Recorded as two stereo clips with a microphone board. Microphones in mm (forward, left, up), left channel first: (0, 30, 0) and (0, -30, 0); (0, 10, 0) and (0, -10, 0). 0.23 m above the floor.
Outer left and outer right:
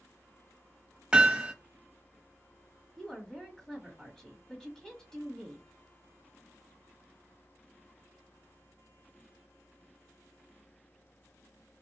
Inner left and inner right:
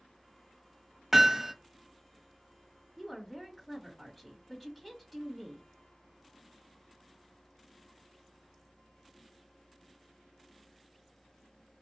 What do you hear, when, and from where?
1.1 s hammering: 20° right (ahead or behind), 0.7 m
3.0 s a woman speaking: 10° left (ahead or behind), 1.5 m